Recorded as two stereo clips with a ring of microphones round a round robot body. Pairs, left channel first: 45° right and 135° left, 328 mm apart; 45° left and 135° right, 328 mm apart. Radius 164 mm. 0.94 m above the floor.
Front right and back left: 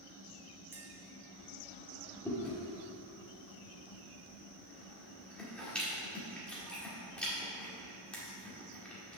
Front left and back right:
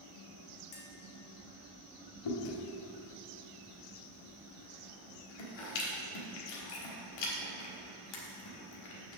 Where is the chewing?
40° left, 1.5 m.